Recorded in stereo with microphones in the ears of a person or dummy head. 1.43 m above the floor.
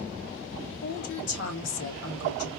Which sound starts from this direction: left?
A woman speaking, at 0.8 s.